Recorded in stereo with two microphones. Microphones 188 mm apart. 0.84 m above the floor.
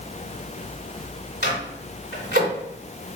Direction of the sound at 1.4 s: 65° left (ahead or behind).